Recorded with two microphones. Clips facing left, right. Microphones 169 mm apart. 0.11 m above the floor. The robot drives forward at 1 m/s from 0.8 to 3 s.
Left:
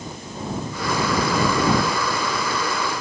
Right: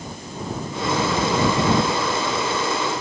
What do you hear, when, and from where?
Only background noise.